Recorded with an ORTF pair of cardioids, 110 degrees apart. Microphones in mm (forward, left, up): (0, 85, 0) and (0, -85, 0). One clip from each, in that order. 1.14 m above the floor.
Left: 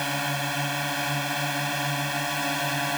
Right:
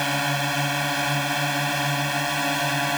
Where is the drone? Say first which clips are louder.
Right 4 dB; 20° right.